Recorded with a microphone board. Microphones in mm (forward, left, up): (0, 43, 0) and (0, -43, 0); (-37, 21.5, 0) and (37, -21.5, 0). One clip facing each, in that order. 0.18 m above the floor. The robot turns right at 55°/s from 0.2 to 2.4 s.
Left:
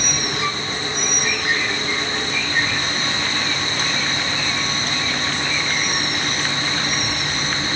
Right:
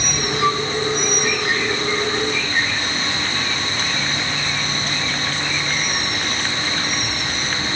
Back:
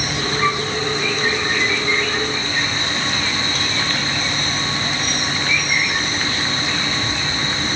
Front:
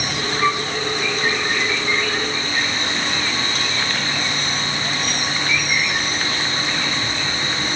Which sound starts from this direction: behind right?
A flute, at 0.4 s.